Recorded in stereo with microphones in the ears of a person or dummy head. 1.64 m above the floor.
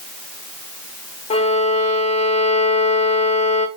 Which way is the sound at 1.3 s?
30° left (ahead or behind).